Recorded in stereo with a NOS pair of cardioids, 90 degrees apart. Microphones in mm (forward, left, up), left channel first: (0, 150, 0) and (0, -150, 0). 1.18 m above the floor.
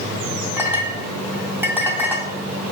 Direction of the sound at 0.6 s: 5° right.